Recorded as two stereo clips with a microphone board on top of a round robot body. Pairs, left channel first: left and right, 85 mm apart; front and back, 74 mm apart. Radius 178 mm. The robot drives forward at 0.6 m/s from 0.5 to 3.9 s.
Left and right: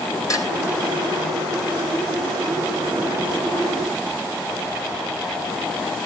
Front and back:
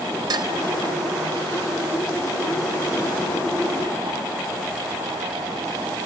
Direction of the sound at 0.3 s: 145° left.